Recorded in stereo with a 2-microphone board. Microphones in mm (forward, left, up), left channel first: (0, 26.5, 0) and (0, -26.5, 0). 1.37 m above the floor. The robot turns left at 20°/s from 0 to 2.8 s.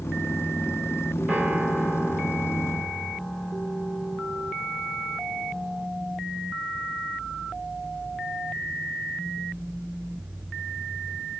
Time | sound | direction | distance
1.3 | a piano | 155° right | 3.5 m